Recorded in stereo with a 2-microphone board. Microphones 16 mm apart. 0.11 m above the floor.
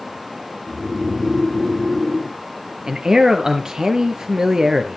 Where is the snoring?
10° right (ahead or behind), 5 m.